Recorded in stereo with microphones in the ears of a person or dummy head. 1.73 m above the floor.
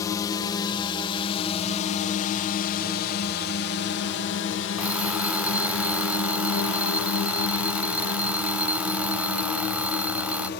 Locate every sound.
0.0 s a drone: 20° left (ahead or behind); by 10.6 s 60° left (ahead or behind)
4.8 s an alarm clock: 10° right (ahead or behind)